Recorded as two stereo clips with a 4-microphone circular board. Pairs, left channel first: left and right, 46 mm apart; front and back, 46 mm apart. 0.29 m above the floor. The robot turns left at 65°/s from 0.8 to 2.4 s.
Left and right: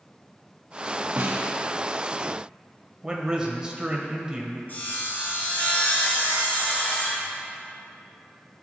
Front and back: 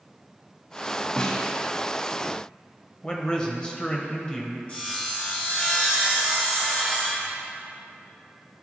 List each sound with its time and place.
1.2 s a snare drum: 60° right, 0.9 m; by 1.5 s 85° right, 0.9 m
3.0 s a man speaking: 40° right, 1.1 m
4.7 s sawing: 55° left, 2.5 m